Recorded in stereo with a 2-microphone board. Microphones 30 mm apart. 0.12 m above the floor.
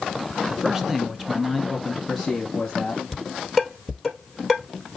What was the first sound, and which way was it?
A man speaking, 20° right (ahead or behind).